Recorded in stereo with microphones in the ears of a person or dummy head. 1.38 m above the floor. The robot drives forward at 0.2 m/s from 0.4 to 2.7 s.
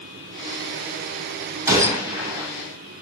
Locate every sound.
1.7 s a gunshot: 15° right (ahead or behind), 7 m